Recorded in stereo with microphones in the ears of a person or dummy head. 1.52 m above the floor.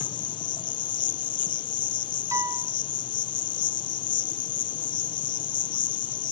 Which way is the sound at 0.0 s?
25° left (ahead or behind).